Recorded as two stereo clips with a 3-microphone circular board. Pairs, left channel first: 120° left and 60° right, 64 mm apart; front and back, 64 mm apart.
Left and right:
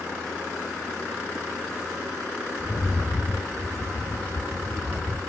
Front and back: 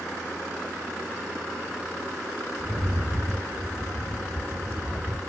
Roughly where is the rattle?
Behind left.